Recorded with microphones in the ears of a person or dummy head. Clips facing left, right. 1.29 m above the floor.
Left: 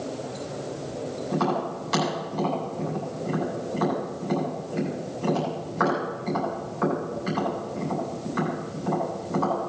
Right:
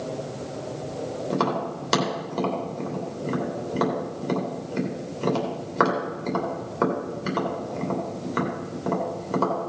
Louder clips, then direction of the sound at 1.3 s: Even; 75° right (ahead or behind).